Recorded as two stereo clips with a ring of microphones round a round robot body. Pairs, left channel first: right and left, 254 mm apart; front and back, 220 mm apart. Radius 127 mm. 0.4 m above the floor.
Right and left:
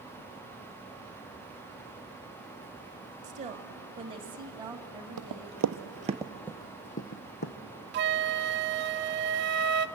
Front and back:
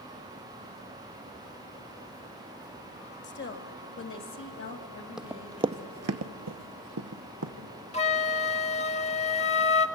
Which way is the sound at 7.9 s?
55° left.